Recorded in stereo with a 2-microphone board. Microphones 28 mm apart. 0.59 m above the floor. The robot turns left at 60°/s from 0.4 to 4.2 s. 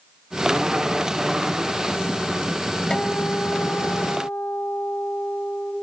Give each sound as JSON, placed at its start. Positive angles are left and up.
{"t": 2.9, "sound": "a guitar", "azimuth_deg": 145, "distance_m": 3.5}